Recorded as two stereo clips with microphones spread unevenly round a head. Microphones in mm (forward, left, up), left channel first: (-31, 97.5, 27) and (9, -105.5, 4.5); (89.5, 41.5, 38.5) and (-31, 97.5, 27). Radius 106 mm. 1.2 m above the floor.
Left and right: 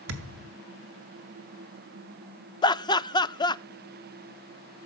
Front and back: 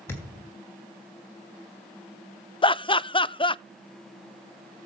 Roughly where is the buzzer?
I don't hear a buzzer.